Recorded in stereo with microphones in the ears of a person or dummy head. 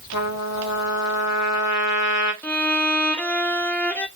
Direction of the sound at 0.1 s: 65° left (ahead or behind).